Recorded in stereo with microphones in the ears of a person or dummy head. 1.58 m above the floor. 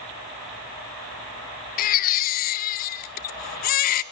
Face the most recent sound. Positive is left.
turn(degrees=50)  # may be behind; listen again after turning